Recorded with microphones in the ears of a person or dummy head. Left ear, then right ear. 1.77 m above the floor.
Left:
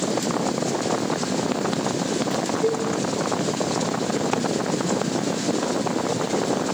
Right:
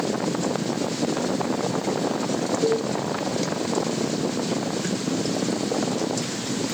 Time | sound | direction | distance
2.6 | a cowbell | 45° right (ahead or behind) | 3 m